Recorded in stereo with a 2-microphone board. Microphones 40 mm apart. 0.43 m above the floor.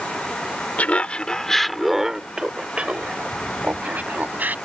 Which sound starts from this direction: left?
Laughter, at 0.8 s.